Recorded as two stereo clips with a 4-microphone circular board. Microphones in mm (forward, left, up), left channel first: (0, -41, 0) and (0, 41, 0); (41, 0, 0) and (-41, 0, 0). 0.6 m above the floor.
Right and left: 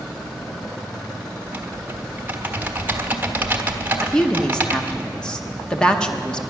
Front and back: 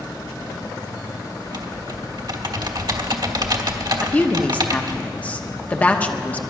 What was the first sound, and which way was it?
Typing on a keyboard, 155° left.